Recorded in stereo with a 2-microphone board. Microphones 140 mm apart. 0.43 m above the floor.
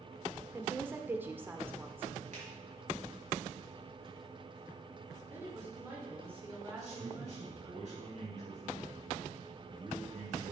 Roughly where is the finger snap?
Right.